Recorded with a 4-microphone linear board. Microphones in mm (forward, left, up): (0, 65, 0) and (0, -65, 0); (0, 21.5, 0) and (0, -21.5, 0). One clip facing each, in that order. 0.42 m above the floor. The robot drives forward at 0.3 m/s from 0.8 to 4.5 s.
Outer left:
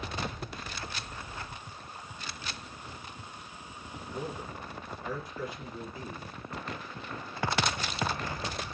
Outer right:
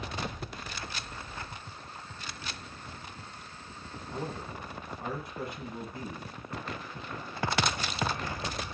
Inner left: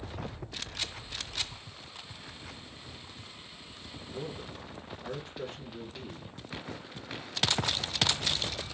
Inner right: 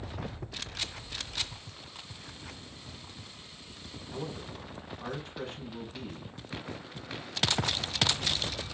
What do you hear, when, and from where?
4.1 s a man speaking: 65° right (ahead or behind), 2.5 m; by 6.4 s 60° right (ahead or behind), 2.5 m